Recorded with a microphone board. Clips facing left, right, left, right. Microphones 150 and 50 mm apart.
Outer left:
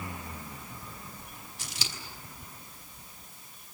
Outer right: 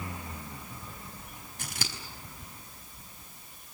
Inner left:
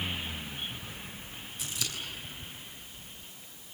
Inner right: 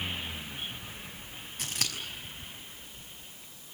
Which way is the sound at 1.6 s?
60° right (ahead or behind).